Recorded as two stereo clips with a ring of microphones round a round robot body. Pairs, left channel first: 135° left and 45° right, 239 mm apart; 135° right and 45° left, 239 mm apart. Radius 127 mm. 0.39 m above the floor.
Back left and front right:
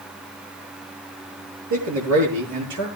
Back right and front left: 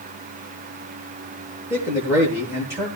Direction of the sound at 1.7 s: 35° right.